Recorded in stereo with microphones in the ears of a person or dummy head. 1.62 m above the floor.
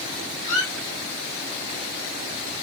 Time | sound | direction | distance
0.4 | a squeak | 40° left (ahead or behind) | 1.4 m